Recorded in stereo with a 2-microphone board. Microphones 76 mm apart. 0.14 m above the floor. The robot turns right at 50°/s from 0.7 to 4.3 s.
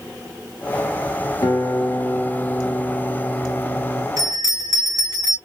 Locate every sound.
1.4 s a guitar: 90° left, 2.5 m; by 4.1 s 140° right, 2.5 m
4.2 s a bell: 50° right (ahead or behind), 2.5 m; by 5.4 s 55° right (ahead or behind), 2.5 m